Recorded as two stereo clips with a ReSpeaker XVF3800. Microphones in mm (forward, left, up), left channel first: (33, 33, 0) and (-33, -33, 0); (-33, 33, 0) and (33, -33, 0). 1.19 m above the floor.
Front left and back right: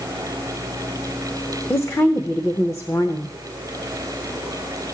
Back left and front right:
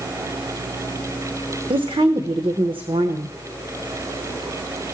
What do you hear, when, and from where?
1.7 s a woman speaking: 15° right, 0.7 m